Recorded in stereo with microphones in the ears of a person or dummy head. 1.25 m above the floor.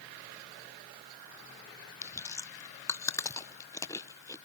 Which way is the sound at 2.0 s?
10° left (ahead or behind).